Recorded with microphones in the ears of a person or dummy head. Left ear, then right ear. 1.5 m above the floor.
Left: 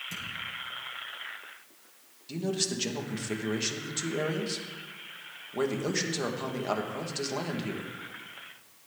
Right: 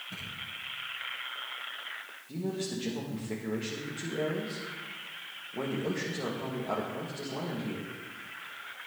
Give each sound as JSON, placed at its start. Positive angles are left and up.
{"t": 0.1, "sound": "a thud", "side_deg": 75, "distance_m": 7.0}
{"t": 2.3, "sound": "a man speaking", "side_deg": 55, "distance_m": 2.5}